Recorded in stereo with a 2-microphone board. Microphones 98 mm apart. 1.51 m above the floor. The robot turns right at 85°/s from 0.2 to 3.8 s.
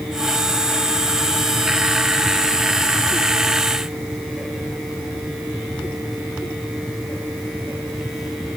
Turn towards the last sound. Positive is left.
No sound to turn to.